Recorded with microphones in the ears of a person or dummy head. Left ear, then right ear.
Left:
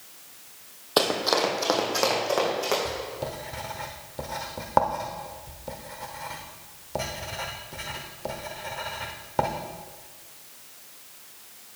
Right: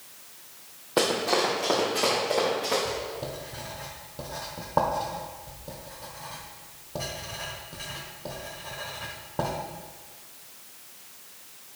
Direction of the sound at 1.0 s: 55° left (ahead or behind).